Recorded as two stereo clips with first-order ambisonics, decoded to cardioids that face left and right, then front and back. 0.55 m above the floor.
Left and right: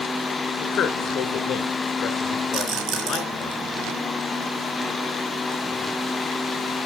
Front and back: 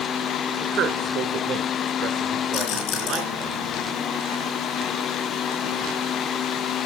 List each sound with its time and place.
0.6 s a man speaking: 140° left, 2.5 m
2.5 s a rattle: 55° right, 4 m